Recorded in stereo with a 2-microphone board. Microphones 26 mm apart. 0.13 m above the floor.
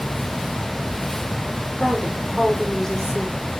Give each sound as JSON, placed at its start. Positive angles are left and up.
{"t": 1.8, "sound": "a woman speaking", "side_deg": 10, "distance_m": 7.0}